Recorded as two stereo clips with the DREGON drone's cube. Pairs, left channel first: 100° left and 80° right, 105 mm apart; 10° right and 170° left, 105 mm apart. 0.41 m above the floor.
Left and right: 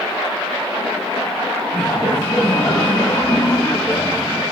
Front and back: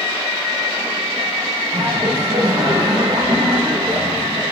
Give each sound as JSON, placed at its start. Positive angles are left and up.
{"t": 1.7, "sound": "laughter", "azimuth_deg": 170, "distance_m": 2.5}